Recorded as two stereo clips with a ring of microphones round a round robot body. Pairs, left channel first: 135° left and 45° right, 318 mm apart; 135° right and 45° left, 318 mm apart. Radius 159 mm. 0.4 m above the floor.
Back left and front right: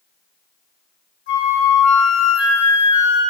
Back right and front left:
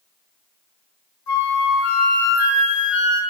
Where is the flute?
170° right, 1.3 m.